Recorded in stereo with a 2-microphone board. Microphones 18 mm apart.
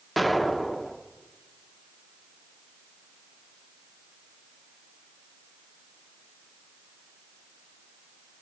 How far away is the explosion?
About 0.6 m.